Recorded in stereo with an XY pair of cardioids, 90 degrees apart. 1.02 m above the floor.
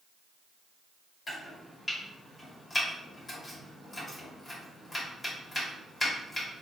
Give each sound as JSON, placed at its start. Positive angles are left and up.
{"t": 1.3, "sound": "chopping", "azimuth_deg": 30, "distance_m": 2.0}